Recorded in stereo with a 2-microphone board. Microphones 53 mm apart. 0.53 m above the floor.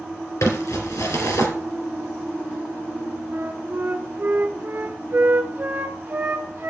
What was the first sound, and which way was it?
Crumpling, 80° left.